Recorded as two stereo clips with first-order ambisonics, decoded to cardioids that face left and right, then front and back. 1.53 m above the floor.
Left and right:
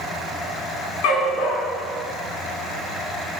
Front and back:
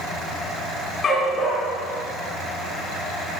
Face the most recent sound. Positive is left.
turn(degrees=75)